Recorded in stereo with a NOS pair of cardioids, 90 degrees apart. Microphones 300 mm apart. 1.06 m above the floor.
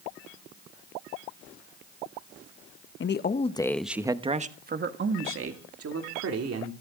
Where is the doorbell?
I don't hear a doorbell.